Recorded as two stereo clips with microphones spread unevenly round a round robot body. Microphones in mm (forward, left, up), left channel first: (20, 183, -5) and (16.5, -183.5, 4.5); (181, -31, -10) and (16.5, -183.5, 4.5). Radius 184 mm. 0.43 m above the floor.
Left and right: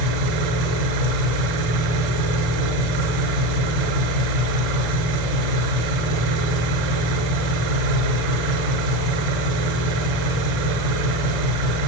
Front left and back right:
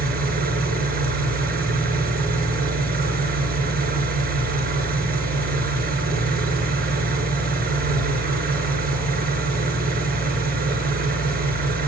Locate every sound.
0.0 s an engine running: 85° right, 6 m